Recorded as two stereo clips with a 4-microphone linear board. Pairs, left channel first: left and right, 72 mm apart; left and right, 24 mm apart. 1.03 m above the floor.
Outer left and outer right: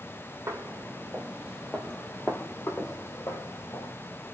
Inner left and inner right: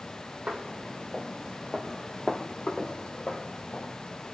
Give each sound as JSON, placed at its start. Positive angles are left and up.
{"t": 0.5, "sound": "footsteps", "side_deg": -40, "distance_m": 1.7}